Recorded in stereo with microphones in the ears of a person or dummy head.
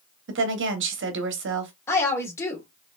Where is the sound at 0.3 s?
65° right (ahead or behind), 1.0 m.